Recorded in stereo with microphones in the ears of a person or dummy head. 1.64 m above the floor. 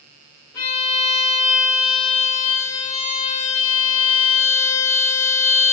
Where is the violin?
20° left (ahead or behind), 1.6 m.